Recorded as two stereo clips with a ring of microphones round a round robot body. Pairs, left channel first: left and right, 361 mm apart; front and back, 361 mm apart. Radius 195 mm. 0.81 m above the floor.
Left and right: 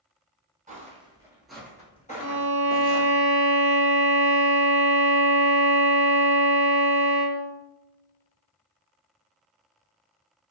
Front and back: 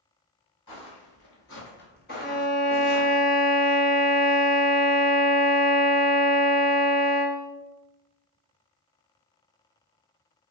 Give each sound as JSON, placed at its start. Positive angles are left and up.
{"t": 0.7, "sound": "footsteps", "azimuth_deg": -30, "distance_m": 1.1}
{"t": 2.2, "sound": "a violin", "azimuth_deg": 65, "distance_m": 0.7}